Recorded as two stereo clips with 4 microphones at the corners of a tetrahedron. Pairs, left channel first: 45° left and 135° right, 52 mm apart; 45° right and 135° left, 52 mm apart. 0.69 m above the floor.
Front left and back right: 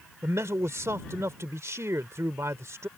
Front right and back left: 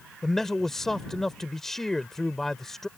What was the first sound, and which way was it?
A man speaking, 125° right.